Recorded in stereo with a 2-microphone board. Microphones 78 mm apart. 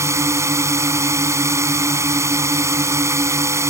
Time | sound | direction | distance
0.0 | a drone | 40° right (ahead or behind) | ?